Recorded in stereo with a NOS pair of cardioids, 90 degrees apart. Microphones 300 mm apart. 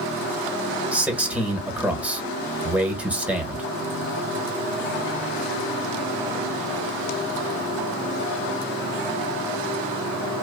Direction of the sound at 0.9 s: 5° right.